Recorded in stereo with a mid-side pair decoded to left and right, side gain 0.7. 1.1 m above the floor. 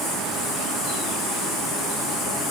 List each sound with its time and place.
Only background noise.